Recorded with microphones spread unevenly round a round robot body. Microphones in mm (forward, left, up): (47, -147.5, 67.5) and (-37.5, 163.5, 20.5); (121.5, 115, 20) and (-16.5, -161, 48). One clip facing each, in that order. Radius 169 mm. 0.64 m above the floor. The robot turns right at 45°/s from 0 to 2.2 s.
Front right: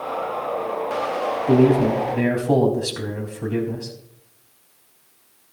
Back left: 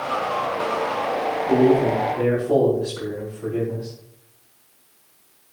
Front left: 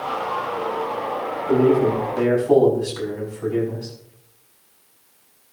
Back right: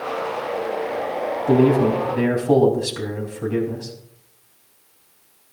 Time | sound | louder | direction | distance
1.5 | a man speaking | front right 1 dB, back right 1 dB | 105° right | 4 m